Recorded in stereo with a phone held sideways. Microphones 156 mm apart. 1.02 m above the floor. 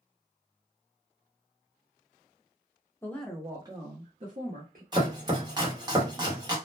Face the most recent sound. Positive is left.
turn(degrees=-25)  # may be behind; listen again after turning